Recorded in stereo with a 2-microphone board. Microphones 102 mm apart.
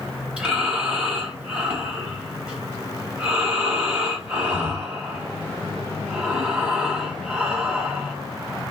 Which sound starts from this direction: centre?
Breathing, at 0.4 s.